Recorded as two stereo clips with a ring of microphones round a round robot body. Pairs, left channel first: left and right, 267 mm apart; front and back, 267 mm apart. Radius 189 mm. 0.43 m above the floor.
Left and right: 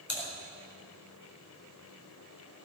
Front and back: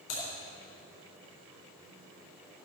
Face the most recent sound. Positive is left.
turn(degrees=45)